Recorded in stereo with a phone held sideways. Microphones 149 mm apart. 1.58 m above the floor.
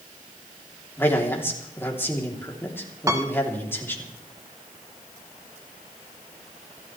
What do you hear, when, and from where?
1.0 s a man speaking: 15° left (ahead or behind), 3 m
3.1 s a piano: 20° right (ahead or behind), 1.6 m